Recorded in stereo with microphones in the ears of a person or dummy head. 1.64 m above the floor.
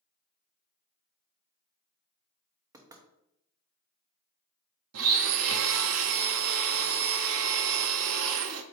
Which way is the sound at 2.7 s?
25° right (ahead or behind).